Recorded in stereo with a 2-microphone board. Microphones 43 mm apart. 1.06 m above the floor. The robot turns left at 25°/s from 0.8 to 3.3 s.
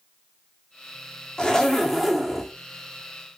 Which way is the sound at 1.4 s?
20° left (ahead or behind).